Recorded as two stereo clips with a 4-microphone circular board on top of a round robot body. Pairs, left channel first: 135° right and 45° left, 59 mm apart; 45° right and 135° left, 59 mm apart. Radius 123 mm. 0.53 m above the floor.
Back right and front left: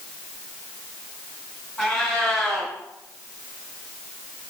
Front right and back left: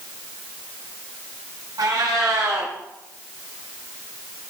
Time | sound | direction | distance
1.8 | a cat meowing | 130° left | 2 m